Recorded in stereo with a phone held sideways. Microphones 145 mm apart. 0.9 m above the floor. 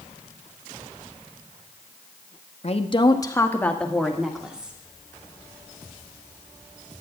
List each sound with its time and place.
2.6 s a woman speaking: 45° left (ahead or behind), 1.0 m; by 4.8 s 10° right (ahead or behind), 2.0 m